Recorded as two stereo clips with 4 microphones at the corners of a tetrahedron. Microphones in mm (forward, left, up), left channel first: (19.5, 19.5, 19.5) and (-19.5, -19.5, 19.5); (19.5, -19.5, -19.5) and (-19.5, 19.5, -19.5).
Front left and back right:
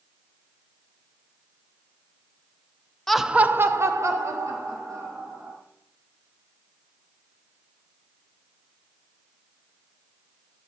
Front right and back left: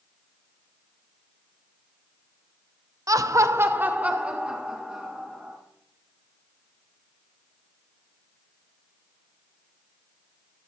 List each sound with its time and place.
3.1 s laughter: 125° left, 0.6 m; by 5.6 s 150° right, 3 m